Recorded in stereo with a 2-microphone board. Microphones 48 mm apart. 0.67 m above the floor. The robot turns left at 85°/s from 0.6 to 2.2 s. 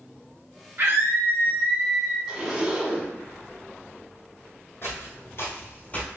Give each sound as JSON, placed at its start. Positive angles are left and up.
{"t": 0.8, "sound": "a scream", "azimuth_deg": -75, "distance_m": 1.4}
{"t": 2.3, "sound": "a zipper", "side_deg": -15, "distance_m": 0.9}
{"t": 4.8, "sound": "footsteps", "side_deg": 45, "distance_m": 1.5}